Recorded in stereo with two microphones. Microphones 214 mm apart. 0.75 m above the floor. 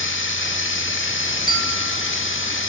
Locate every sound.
0.0 s running water: 70° left (ahead or behind), 1.1 m
1.5 s a bell: 20° right (ahead or behind), 2 m